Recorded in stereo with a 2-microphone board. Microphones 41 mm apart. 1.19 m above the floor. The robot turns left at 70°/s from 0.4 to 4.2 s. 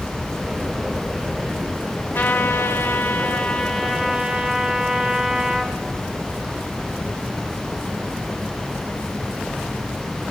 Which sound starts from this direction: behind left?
A trumpet, at 2.1 s.